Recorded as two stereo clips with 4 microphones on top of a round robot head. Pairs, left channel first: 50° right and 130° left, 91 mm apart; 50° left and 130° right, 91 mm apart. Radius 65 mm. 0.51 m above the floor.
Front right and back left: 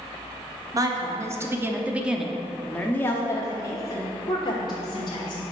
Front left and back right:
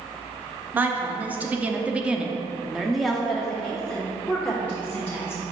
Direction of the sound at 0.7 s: 165° left.